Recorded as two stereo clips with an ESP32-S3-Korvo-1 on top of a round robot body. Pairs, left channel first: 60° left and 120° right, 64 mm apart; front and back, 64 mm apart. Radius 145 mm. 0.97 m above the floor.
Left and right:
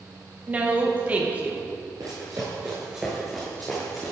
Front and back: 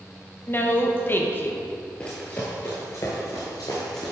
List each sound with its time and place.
0.5 s a woman speaking: 50° right, 1.4 m
2.0 s running footsteps: 75° right, 1.3 m; by 4.1 s 15° left, 1.2 m